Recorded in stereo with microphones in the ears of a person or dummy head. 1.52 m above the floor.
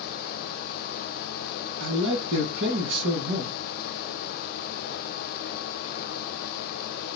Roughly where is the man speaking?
Right.